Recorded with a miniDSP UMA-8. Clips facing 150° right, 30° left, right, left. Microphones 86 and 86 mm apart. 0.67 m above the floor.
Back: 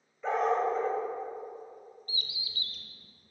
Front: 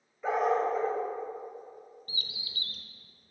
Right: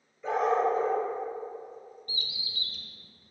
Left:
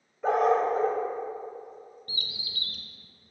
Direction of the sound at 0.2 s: 115° left.